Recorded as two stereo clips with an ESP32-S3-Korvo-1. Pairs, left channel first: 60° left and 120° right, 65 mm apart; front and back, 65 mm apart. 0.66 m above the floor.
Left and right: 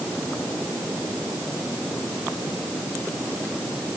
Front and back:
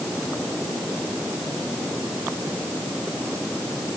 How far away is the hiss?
I don't hear a hiss.